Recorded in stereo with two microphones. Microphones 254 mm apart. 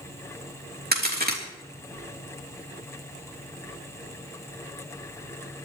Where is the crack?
40° right (ahead or behind), 3 m.